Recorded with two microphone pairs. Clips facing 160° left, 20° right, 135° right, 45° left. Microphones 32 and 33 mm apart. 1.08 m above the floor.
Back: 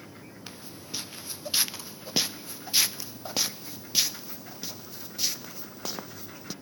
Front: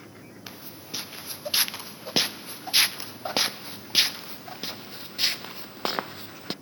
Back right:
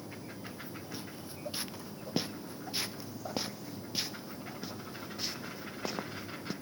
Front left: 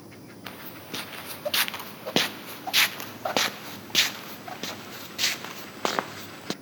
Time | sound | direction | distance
0.5 | footsteps | 60° left | ?